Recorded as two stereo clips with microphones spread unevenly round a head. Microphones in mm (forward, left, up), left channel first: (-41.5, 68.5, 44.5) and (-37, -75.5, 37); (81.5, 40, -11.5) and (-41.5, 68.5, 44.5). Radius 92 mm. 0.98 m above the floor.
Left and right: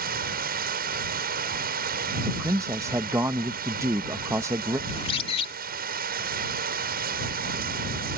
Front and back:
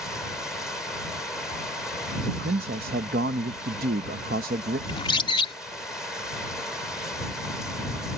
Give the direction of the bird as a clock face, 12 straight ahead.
11 o'clock.